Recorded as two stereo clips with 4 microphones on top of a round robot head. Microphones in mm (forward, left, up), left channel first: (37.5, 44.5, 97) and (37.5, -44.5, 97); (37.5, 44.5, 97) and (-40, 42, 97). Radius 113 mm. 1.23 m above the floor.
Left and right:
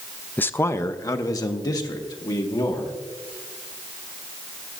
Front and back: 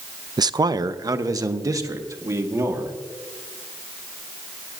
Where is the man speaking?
160° left, 0.5 m; by 3.0 s 135° left, 2.0 m.